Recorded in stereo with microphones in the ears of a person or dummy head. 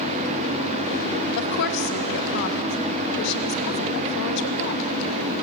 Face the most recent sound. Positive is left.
turn(degrees=65)  # may be behind; listen again after turning